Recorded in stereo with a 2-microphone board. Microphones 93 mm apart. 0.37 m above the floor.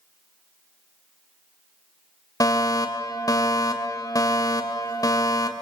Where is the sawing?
I don't hear sawing.